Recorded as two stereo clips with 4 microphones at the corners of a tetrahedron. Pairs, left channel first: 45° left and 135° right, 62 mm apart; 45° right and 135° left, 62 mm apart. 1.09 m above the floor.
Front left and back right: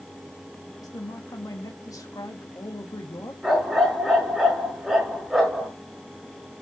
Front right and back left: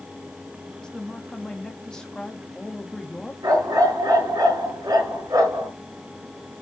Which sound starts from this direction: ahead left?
A woman speaking, at 0.8 s.